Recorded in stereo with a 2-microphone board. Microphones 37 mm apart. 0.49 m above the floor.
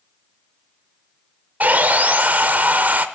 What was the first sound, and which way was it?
Sawing, 50° right (ahead or behind).